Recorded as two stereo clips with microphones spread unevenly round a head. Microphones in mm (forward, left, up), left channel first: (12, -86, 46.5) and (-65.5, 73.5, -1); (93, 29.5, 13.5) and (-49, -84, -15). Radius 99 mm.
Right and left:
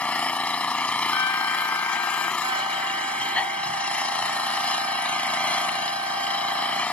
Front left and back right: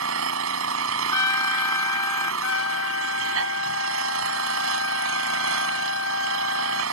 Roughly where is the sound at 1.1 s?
Ahead.